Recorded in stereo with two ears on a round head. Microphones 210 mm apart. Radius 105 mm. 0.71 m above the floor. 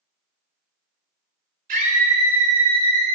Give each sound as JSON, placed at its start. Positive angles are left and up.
{"t": 1.7, "sound": "a scream", "side_deg": -35, "distance_m": 3.0}